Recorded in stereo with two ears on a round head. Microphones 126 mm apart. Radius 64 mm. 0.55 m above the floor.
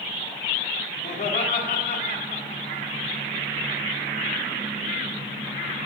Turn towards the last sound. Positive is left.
turn(degrees=50)  # may be behind; listen again after turning